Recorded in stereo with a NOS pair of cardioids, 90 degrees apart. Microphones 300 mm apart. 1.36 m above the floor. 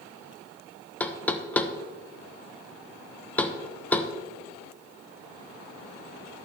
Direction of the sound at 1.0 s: 5° left.